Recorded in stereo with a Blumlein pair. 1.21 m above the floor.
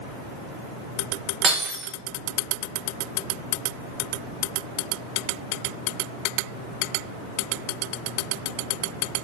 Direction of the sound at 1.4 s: 25° right.